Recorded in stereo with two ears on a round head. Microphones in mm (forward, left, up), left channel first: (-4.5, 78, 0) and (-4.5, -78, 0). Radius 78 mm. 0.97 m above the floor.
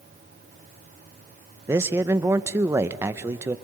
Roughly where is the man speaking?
Centre.